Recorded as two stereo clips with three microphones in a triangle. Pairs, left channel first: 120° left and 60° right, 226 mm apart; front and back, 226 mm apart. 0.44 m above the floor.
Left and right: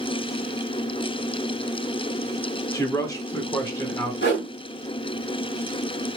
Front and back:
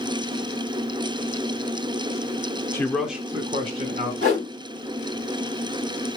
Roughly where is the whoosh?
Behind left.